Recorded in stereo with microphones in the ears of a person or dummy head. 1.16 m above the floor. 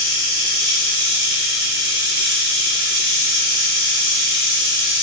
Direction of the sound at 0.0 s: 20° right (ahead or behind).